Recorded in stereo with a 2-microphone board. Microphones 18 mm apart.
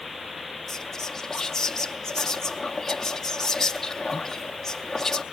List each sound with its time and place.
0.7 s whispering: 20° left (ahead or behind), 0.7 m